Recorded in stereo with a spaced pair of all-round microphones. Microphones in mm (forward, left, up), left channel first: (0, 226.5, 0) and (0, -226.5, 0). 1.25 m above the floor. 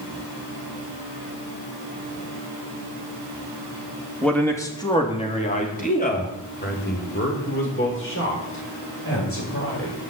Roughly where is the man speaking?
Centre.